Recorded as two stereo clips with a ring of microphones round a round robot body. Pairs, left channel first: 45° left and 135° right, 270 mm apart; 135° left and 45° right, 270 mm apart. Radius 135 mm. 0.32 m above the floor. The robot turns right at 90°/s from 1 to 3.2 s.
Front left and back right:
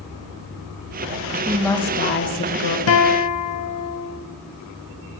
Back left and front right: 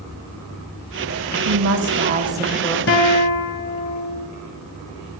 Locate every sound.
1.4 s a woman speaking: 50° right, 1.4 m; by 2.8 s 65° left, 1.4 m
2.9 s a guitar: 85° left, 0.9 m; by 4.3 s 115° left, 0.9 m